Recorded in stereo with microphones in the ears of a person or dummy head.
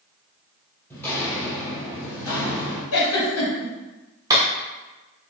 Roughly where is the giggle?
Left.